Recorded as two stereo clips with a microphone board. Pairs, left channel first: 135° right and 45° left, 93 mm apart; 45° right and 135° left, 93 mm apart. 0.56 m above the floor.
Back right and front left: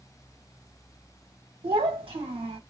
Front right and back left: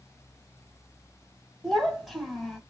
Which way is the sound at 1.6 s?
50° left.